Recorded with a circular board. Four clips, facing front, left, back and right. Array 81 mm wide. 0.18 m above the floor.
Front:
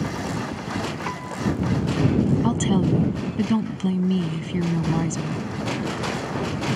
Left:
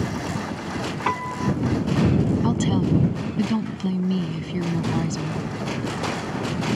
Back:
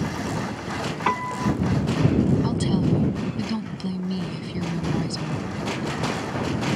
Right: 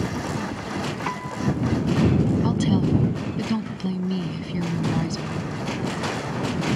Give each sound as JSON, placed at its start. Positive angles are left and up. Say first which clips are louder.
{"t": 1.1, "sound": "a piano", "louder": "left 5 dB, back 3 dB", "azimuth_deg": 145}
{"t": 2.4, "sound": "a woman speaking", "louder": "even, front 2 dB", "azimuth_deg": 15}